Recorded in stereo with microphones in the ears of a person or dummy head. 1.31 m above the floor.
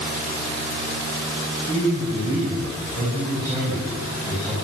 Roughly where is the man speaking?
Centre.